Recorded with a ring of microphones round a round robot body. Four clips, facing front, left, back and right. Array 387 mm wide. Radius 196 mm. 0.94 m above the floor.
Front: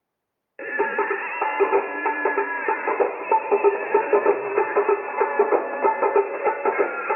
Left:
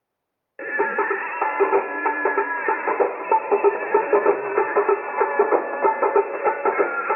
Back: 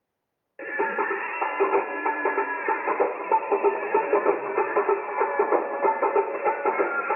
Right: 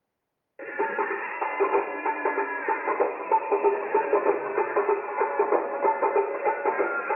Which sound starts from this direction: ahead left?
Singing, at 0.6 s.